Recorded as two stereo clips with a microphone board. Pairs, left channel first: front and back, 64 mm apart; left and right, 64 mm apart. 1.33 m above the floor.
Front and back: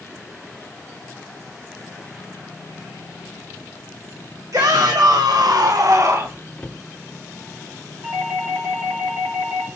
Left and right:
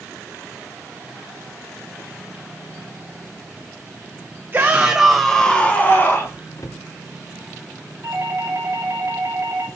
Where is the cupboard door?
75° left, 0.6 m.